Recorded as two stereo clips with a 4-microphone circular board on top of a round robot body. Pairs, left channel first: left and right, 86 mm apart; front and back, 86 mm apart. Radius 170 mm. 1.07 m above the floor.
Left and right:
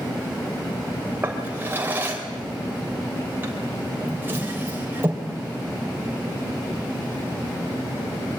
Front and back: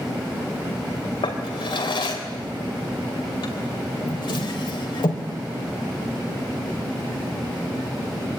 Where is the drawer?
25° right, 3 m.